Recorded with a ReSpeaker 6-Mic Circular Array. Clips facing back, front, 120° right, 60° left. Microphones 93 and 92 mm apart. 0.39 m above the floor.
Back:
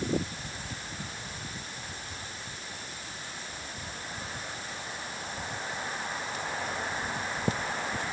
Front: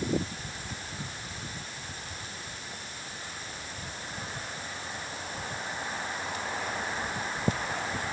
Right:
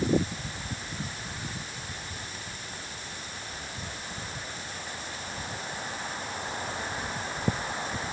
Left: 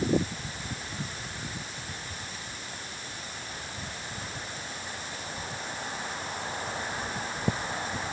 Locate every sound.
Only background noise.